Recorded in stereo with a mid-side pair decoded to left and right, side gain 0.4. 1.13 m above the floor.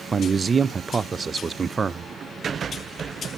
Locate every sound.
0.1 s a man speaking: 40° right, 0.5 m